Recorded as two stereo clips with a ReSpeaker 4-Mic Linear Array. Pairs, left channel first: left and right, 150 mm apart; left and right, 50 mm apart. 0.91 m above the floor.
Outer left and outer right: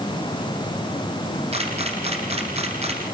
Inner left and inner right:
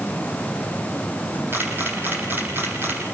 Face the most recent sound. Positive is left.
turn(degrees=-40)  # may be behind; listen again after turning